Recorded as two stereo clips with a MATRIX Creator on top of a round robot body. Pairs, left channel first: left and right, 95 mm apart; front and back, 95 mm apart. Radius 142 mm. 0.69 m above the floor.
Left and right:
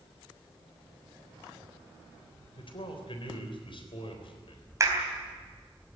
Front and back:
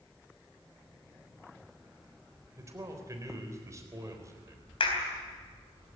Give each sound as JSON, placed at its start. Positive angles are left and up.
{"t": 2.6, "sound": "a man speaking", "azimuth_deg": 120, "distance_m": 4.0}
{"t": 4.8, "sound": "a clap", "azimuth_deg": -30, "distance_m": 4.0}